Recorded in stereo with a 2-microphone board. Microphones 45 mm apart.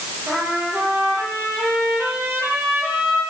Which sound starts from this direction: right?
A trumpet, at 0.3 s.